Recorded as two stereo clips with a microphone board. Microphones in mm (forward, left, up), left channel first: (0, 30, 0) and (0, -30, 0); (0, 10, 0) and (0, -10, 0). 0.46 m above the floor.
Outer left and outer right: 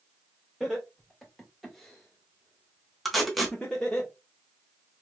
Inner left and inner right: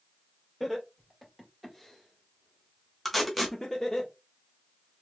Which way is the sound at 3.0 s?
Centre (ahead or behind).